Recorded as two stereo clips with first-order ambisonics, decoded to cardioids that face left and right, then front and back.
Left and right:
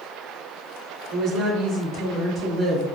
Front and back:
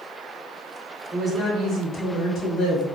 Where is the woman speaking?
105° right, 1.3 m; by 2.8 s 20° right, 2 m.